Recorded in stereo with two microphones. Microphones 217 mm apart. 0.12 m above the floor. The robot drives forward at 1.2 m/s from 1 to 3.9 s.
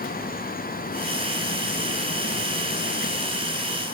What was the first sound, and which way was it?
Only background noise.